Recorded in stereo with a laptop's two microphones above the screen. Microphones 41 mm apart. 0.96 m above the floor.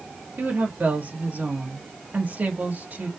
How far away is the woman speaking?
About 1.7 m.